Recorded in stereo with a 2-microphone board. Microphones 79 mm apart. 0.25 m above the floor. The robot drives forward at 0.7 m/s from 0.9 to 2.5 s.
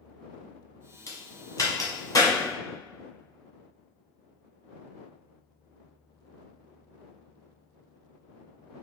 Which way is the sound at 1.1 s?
40° left (ahead or behind).